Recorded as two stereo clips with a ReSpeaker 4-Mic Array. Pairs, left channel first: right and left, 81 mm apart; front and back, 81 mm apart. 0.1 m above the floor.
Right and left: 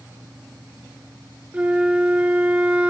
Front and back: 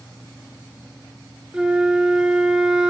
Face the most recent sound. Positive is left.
turn(degrees=120)